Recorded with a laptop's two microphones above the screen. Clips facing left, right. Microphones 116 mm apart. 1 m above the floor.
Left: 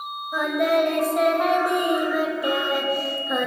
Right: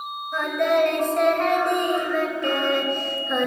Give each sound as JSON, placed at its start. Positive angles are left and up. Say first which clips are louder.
{"t": 0.3, "sound": "singing", "louder": "even", "side_deg": 10, "distance_m": 0.8}